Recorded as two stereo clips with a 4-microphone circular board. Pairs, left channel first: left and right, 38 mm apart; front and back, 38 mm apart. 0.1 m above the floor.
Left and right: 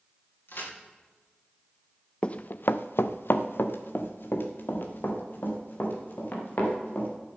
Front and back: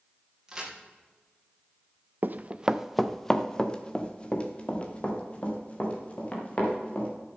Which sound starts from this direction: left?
A crack, at 0.5 s.